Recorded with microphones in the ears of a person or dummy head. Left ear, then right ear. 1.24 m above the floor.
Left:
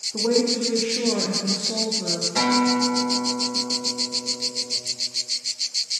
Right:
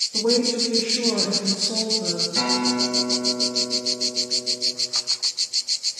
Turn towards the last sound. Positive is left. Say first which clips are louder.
# left 3 dB
turn(degrees=35)  # may be behind; listen again after turning